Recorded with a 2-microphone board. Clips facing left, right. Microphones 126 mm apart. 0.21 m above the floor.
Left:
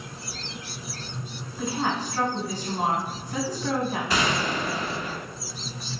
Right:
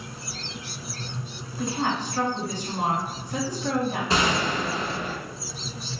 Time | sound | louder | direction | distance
1.6 | a woman speaking | right 1 dB | 5° left (ahead or behind) | 1.4 m
4.1 | a gunshot | right 3 dB | 30° right (ahead or behind) | 0.8 m